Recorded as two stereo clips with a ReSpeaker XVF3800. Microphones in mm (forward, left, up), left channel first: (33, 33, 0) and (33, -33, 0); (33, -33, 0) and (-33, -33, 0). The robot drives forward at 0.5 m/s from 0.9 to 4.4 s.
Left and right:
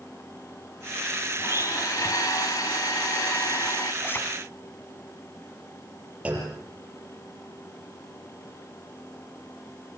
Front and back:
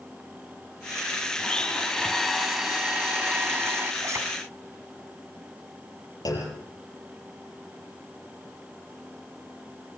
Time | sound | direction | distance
1.4 | a blender | 70° left | 1.5 m
4.0 | a zipper | 145° left | 3 m
6.2 | a clunk | 20° right | 6 m